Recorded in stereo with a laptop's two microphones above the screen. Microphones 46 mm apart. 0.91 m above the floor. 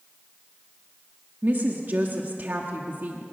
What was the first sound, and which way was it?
A woman speaking, 45° right (ahead or behind).